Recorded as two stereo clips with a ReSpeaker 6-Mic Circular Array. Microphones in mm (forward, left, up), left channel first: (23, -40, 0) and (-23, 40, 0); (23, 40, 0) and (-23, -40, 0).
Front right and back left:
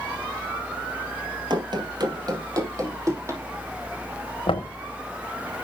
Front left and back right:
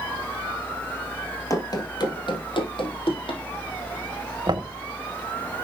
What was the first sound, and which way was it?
Running footsteps, 105° left.